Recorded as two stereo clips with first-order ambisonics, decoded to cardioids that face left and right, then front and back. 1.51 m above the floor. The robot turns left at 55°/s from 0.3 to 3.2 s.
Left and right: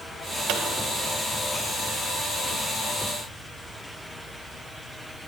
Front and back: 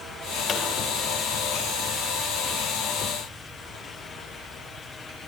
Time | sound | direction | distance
0.5 | a pop | 50° right | 2 m